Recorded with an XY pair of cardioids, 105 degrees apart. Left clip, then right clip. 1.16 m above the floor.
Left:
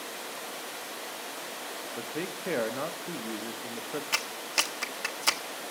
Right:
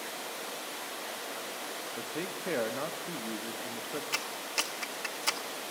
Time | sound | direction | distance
2.0 | a man speaking | 15° left | 1.1 m
4.1 | a clap | 35° left | 1.3 m